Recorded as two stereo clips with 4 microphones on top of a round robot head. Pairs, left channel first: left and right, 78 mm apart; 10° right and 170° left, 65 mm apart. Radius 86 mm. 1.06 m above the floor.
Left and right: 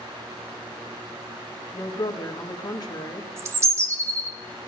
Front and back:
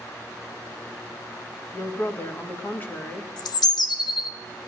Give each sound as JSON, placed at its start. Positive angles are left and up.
{"t": 1.7, "sound": "a woman speaking", "azimuth_deg": 50, "distance_m": 1.7}
{"t": 3.4, "sound": "a bird", "azimuth_deg": -30, "distance_m": 0.7}